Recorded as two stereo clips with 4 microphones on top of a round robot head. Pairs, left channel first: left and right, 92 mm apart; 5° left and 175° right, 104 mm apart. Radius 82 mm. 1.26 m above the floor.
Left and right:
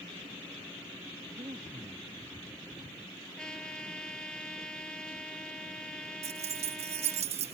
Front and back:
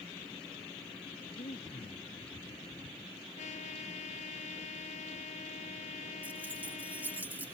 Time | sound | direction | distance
1.3 | breathing | 40° right | ?
3.4 | a trumpet | 10° left | ?
6.2 | keys jangling | 95° right | ?